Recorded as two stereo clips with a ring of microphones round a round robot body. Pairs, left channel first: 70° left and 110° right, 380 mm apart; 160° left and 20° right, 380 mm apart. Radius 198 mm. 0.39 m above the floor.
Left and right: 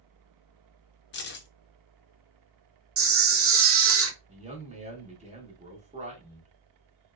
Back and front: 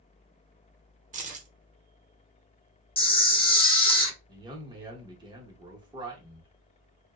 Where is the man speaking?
80° right, 0.9 m.